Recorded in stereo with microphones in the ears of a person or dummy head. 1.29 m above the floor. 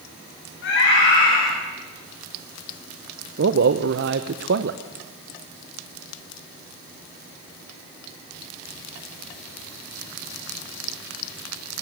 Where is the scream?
65° left (ahead or behind), 6 m.